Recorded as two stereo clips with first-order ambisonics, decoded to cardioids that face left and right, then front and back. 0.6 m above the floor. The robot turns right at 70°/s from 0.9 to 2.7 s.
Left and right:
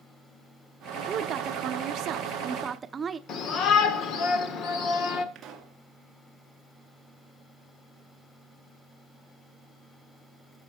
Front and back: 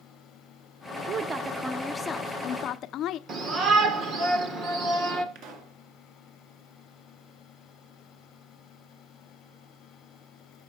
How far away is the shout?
About 1.6 m.